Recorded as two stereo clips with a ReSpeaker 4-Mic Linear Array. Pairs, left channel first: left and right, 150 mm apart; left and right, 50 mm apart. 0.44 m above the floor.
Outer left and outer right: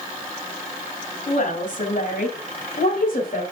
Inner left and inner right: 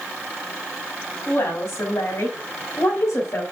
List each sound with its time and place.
1.3 s a woman speaking: 55° left (ahead or behind), 3 m; by 3.4 s 70° left (ahead or behind), 2.5 m